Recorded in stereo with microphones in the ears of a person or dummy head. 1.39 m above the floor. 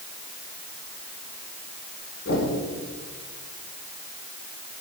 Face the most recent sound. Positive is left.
turn(degrees=75)  # may be behind; listen again after turning